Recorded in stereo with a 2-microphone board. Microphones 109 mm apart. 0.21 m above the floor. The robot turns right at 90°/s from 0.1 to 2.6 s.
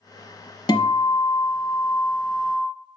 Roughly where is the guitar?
Ahead left.